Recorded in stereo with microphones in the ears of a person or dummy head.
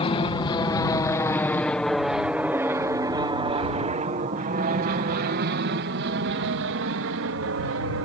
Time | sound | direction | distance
0.0 | an aircraft | 25° left (ahead or behind) | ?